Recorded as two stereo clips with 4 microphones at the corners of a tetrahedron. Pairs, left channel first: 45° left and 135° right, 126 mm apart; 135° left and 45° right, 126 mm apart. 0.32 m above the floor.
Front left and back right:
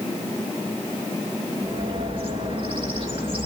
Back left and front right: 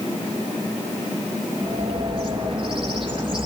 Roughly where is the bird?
Right.